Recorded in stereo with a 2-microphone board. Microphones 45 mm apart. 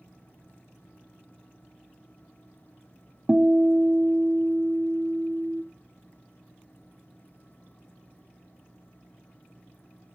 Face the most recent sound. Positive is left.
turn(degrees=-35)  # may be behind; listen again after turning